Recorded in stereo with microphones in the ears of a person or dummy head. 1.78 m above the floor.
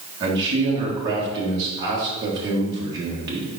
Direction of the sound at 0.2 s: 20° right (ahead or behind).